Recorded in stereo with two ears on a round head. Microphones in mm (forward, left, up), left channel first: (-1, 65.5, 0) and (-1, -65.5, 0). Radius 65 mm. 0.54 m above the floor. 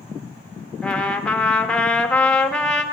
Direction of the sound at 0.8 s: 5° left (ahead or behind).